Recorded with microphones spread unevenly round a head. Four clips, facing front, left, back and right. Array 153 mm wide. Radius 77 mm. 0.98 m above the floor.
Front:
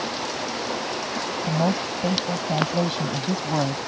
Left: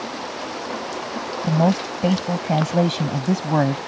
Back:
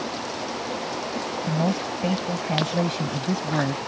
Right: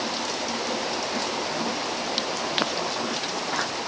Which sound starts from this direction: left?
A woman speaking, at 1.4 s.